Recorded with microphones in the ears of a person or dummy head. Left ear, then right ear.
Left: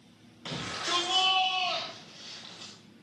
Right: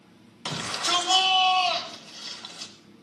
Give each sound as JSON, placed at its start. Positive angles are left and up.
{"t": 0.5, "sound": "a shout", "side_deg": -35, "distance_m": 4.5}